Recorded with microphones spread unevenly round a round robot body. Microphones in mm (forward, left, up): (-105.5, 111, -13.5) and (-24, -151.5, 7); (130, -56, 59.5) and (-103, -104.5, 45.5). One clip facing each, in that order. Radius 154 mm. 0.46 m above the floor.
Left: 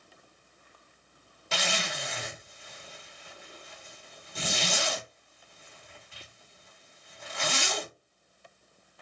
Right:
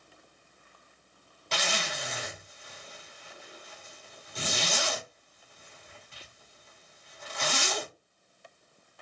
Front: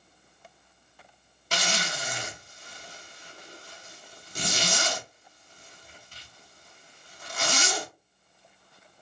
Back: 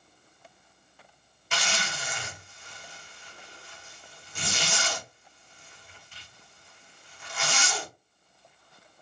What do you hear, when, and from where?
1.5 s a zipper: 30° left, 1.0 m